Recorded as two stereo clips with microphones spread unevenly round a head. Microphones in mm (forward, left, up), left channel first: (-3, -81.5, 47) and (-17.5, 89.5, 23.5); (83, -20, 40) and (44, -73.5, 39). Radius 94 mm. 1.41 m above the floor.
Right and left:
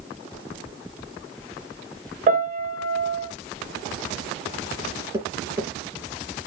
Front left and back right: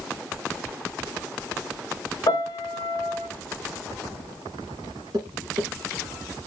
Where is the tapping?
170° left, 2.5 m.